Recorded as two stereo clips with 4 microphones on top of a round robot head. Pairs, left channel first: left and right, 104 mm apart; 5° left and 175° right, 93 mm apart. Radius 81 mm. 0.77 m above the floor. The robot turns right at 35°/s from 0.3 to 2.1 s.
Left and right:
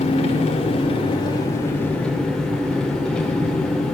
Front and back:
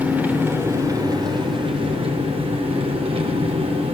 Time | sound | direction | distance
0.0 | an engine running | 110° left | 2.5 m